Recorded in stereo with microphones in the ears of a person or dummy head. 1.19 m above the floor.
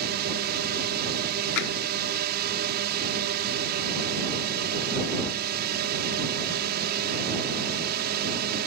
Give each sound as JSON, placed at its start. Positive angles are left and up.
{"t": 0.0, "sound": "a drone", "side_deg": -50}
{"t": 1.6, "sound": "tapping", "side_deg": 65}